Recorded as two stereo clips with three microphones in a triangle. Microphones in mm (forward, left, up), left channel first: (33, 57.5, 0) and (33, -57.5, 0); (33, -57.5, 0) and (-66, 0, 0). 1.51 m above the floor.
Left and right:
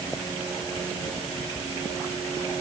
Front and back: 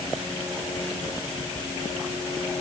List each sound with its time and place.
Only background noise.